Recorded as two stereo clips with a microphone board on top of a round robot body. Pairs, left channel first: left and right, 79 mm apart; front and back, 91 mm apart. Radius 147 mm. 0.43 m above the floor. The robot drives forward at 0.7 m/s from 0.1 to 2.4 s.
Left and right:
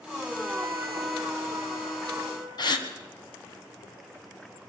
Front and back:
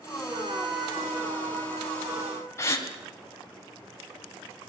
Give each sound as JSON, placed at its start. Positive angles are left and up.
{"t": 0.3, "sound": "a trumpet", "azimuth_deg": -170, "distance_m": 3.0}
{"t": 2.6, "sound": "a gasp", "azimuth_deg": 60, "distance_m": 2.5}